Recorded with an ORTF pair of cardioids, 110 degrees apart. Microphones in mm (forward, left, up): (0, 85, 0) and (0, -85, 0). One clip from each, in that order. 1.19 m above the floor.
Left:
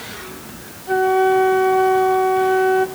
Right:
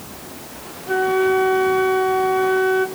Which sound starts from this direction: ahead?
A flute, at 0.9 s.